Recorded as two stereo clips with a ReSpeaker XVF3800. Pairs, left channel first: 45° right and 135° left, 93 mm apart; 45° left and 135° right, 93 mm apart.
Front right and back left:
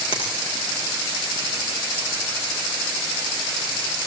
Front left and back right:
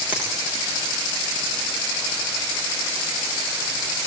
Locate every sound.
0.1 s a finger snap: 60° right, 7.5 m